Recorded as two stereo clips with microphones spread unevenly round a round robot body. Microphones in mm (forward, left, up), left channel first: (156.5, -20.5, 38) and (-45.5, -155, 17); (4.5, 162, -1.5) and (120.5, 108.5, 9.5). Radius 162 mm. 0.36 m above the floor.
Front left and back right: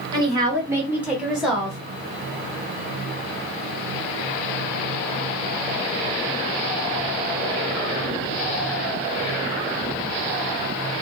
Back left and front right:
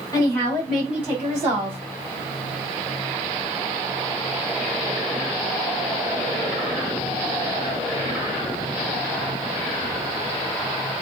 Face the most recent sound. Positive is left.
turn(degrees=-55)